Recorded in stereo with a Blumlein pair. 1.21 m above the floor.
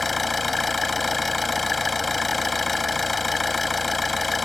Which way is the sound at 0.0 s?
10° left.